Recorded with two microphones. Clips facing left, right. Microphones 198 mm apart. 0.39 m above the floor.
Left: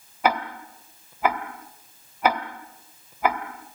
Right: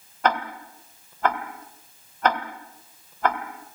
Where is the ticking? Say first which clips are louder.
Left 1 dB; 10° left (ahead or behind), 2 m.